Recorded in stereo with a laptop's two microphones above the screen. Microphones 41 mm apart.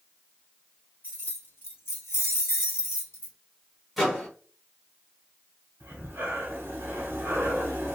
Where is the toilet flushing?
No toilet flushing in this recording.